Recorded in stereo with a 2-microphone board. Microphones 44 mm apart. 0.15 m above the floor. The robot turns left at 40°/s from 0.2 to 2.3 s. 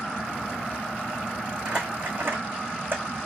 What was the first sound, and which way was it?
Crumpling, 25° right (ahead or behind).